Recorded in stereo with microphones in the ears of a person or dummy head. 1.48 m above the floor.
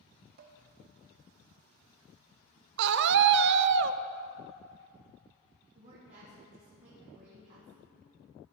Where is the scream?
60° right (ahead or behind), 0.6 m.